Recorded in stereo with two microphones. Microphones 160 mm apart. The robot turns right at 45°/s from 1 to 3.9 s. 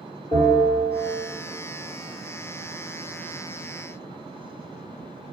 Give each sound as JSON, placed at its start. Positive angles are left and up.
{"t": 0.3, "sound": "a bell", "side_deg": 35, "distance_m": 1.9}